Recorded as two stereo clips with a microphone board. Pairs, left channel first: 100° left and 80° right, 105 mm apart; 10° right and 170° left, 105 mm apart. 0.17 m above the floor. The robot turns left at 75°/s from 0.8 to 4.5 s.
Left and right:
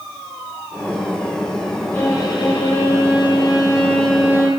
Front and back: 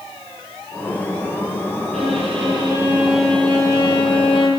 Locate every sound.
1.9 s a violin: 175° left, 5 m; by 4.5 s 20° right, 5 m